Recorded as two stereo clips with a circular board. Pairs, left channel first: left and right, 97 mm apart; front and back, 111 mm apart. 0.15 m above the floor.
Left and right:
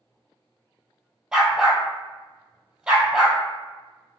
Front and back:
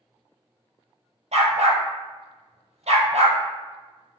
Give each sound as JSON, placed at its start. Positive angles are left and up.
{"t": 1.3, "sound": "a dog barking", "azimuth_deg": -170, "distance_m": 1.0}